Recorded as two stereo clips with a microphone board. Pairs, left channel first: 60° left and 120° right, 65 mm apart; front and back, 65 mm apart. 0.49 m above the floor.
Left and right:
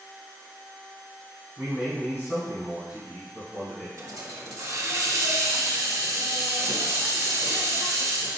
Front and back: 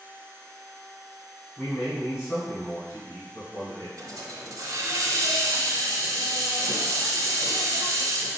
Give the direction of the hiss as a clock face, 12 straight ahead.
5 o'clock.